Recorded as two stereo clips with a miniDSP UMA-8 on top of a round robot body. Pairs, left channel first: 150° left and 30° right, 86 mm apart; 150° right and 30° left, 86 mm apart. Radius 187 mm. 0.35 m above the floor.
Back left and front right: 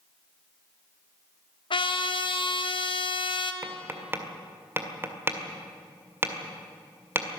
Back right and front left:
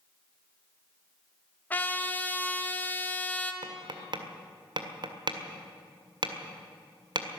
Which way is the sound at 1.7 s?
140° left.